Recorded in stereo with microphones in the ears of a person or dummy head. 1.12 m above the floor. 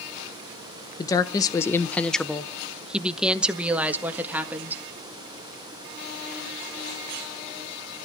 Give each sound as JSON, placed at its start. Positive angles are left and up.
{"t": 1.0, "sound": "a woman speaking", "side_deg": 20, "distance_m": 0.6}